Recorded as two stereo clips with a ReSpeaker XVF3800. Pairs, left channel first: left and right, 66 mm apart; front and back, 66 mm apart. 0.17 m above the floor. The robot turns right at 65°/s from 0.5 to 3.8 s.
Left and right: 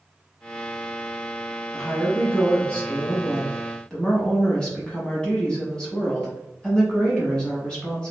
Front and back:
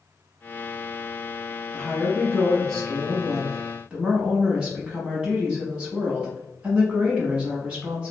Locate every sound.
1.7 s a woman speaking: 5° left, 1.0 m; by 8.1 s 140° left, 1.0 m